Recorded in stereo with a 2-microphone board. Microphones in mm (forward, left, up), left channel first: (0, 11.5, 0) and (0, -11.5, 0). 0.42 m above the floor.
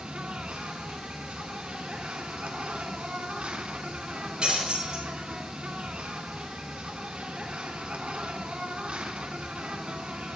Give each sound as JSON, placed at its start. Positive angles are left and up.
{"t": 0.0, "sound": "an insect", "side_deg": -55, "distance_m": 1.0}
{"t": 4.4, "sound": "breaking glass", "side_deg": -40, "distance_m": 4.5}